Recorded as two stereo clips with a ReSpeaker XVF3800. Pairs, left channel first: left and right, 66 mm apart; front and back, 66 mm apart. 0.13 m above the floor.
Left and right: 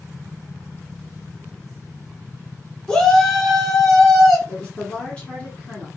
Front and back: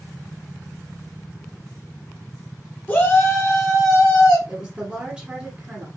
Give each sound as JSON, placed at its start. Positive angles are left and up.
{"t": 2.9, "sound": "a shout", "azimuth_deg": 25, "distance_m": 1.3}
{"t": 4.5, "sound": "a woman speaking", "azimuth_deg": 125, "distance_m": 1.4}